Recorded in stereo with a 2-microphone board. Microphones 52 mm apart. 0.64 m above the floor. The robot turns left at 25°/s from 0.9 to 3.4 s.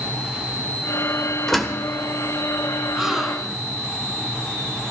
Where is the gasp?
10° right (ahead or behind), 2.5 m; by 3.7 s centre (ahead or behind), 2.5 m.